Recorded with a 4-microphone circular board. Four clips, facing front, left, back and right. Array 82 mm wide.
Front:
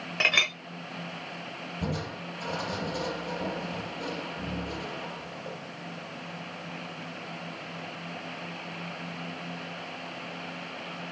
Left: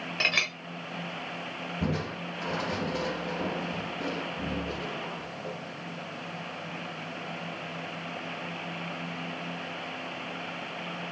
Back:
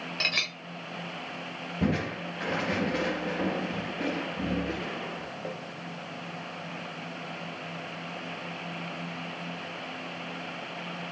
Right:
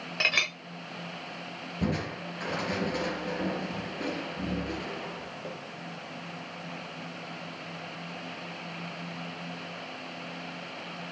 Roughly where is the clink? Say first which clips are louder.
Right 1 dB, front 8 dB; ahead.